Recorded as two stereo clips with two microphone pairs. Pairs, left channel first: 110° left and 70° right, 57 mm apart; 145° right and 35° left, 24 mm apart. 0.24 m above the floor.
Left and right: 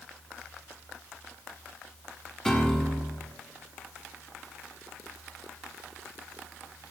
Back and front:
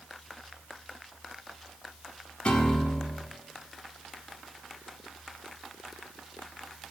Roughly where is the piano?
Behind.